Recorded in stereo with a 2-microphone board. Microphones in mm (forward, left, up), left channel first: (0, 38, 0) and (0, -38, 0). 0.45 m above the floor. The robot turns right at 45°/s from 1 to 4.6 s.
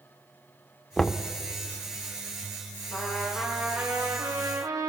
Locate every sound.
1.0 s knocking: 5° left (ahead or behind), 0.7 m; by 1.3 s 10° left (ahead or behind), 0.7 m
2.9 s a trumpet: 155° left, 4.5 m; by 4.9 s 130° right, 4.5 m